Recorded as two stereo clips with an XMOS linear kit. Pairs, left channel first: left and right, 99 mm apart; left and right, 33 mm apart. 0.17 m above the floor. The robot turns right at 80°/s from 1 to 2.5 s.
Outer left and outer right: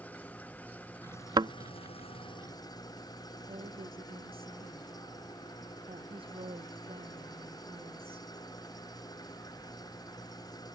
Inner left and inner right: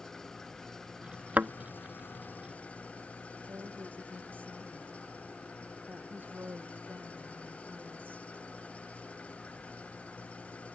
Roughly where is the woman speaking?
Right.